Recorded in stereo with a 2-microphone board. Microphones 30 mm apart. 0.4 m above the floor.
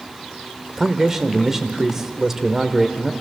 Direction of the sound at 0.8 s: 15° right (ahead or behind).